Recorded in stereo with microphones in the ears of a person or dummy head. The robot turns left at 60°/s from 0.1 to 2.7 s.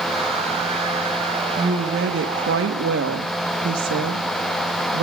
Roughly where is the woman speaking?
Ahead right.